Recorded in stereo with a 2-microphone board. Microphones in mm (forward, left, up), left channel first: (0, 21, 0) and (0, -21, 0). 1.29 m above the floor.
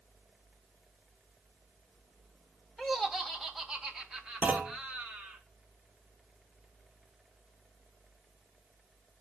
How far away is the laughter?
About 2.5 m.